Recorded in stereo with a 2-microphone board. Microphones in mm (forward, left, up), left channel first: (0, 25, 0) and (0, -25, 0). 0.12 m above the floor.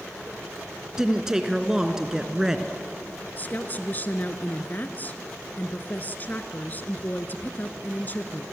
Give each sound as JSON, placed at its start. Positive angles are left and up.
{"t": 1.0, "sound": "a woman speaking", "side_deg": -10, "distance_m": 1.5}
{"t": 3.4, "sound": "a woman speaking", "side_deg": 35, "distance_m": 1.4}